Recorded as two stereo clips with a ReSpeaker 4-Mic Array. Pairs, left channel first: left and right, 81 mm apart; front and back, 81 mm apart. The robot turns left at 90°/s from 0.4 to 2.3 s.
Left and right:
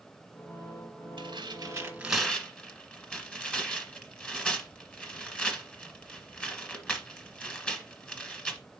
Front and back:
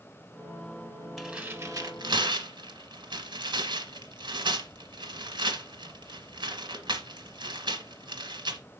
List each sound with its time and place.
1.2 s tearing paper: 90° right, 1.4 m; by 8.6 s 170° left, 1.4 m